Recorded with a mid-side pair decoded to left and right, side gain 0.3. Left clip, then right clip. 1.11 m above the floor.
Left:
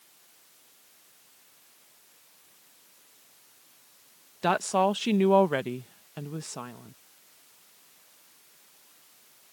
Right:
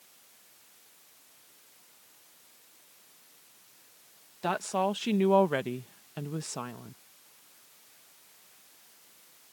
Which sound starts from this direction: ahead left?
A woman speaking, at 4.4 s.